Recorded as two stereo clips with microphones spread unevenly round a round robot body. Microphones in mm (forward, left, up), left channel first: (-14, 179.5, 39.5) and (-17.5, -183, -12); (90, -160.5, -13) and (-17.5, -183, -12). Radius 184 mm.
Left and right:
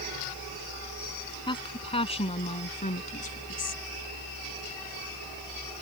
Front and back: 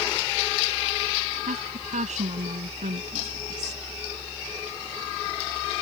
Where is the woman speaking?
165° left; by 3.8 s 155° left.